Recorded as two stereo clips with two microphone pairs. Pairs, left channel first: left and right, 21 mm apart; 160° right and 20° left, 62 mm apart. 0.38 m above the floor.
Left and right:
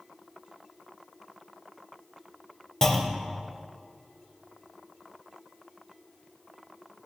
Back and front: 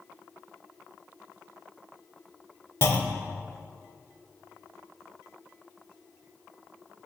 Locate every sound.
2.8 s a clunk: 160° left, 0.7 m